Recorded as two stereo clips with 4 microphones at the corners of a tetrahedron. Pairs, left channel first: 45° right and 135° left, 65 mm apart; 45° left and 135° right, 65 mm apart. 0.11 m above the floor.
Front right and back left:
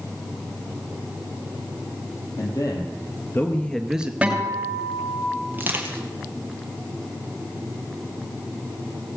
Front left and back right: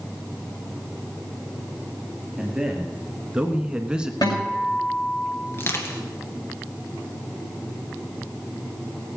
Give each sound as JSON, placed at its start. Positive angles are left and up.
{"t": 2.4, "sound": "a man speaking", "azimuth_deg": -55, "distance_m": 2.5}
{"t": 4.2, "sound": "a guitar", "azimuth_deg": 60, "distance_m": 7.0}
{"t": 5.5, "sound": "crushing", "azimuth_deg": 85, "distance_m": 2.0}